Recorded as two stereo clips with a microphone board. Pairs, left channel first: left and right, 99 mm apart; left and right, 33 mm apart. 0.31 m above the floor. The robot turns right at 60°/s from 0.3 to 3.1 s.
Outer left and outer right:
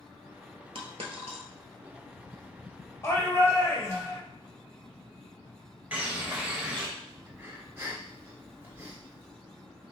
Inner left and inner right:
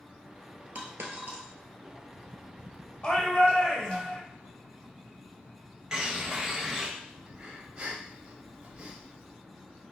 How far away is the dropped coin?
About 1.0 m.